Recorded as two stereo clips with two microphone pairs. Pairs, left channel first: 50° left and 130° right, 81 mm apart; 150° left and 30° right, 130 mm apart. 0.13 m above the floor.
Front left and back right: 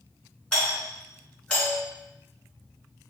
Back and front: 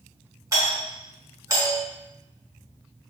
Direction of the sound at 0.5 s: 20° right.